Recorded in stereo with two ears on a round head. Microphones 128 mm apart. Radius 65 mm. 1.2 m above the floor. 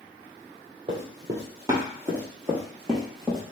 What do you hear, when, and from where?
0.9 s running footsteps: 35° right (ahead or behind), 1.6 m; by 3.4 s centre (ahead or behind), 2 m